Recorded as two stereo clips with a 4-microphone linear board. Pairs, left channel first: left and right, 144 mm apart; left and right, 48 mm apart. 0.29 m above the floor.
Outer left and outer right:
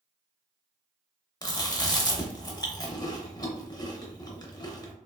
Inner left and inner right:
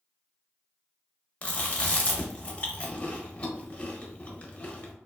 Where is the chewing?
30° left (ahead or behind), 0.6 m.